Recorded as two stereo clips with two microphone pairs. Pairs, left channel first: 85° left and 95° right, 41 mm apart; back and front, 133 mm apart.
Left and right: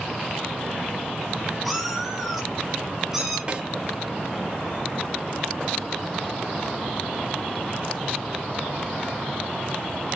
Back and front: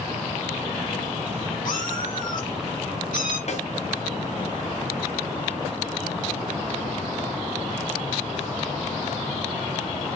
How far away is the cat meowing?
About 4 m.